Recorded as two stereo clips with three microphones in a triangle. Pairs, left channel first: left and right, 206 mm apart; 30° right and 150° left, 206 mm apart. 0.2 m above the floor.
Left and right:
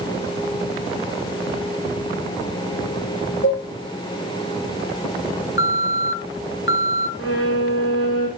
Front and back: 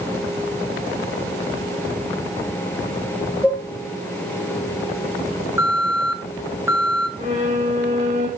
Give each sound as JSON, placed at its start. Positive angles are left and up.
{"t": 3.4, "sound": "dishes clattering", "azimuth_deg": 65, "distance_m": 4.0}
{"t": 5.6, "sound": "an alarm", "azimuth_deg": 75, "distance_m": 1.4}
{"t": 7.2, "sound": "a violin", "azimuth_deg": 95, "distance_m": 5.5}